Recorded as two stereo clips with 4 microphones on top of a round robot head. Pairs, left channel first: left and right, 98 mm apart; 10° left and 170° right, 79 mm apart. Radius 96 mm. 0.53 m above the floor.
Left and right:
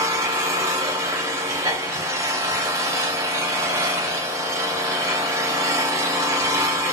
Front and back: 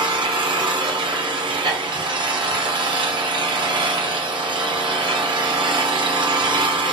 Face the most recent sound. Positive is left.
turn(degrees=-150)